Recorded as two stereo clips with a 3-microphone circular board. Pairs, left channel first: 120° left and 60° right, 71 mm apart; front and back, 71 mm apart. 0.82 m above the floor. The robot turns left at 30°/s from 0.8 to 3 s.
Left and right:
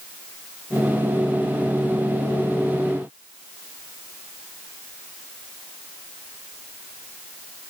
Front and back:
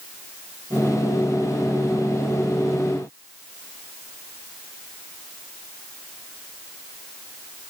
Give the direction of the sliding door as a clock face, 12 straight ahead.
I don't hear a sliding door.